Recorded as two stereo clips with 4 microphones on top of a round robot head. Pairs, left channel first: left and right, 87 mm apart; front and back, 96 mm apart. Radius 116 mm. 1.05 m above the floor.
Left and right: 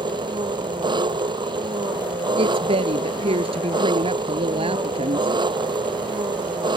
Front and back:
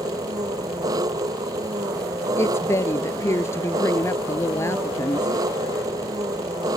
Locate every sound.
0.0 s an engine running: 125° right
2.4 s a woman speaking: 65° right